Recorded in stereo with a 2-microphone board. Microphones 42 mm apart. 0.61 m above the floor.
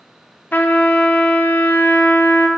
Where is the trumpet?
45° left (ahead or behind), 0.5 m.